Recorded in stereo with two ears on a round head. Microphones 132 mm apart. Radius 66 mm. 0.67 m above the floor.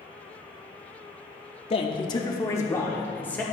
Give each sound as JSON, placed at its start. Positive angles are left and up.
{"t": 1.7, "sound": "a man speaking", "side_deg": 40, "distance_m": 0.9}